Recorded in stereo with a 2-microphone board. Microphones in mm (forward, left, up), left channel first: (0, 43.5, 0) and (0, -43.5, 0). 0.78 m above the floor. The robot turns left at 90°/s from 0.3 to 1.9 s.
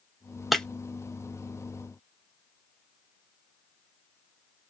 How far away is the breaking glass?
About 0.5 m.